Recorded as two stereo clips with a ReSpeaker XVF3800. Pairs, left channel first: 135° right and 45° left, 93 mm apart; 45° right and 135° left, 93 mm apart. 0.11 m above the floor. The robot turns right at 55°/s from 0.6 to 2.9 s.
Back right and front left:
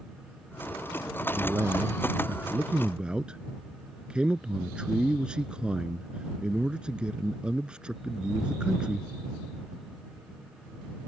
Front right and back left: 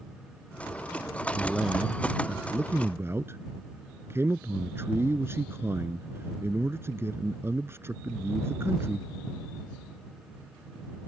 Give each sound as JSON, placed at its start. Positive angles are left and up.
{"t": 1.4, "sound": "a man speaking", "azimuth_deg": 30}